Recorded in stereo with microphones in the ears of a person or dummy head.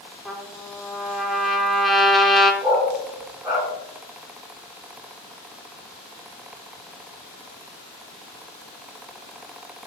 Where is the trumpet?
Centre (ahead or behind), 0.8 m.